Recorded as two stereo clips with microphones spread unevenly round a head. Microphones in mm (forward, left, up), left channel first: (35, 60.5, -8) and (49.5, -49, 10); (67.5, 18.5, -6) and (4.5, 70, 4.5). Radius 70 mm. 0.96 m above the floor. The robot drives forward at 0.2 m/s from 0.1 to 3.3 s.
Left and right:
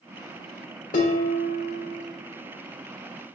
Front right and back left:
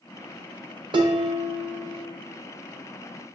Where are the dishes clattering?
115° left, 0.7 m; by 2.0 s 130° left, 0.8 m.